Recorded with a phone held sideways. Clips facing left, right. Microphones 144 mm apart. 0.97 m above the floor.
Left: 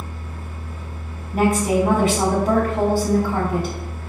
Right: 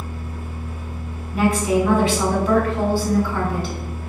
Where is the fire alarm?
No fire alarm in this recording.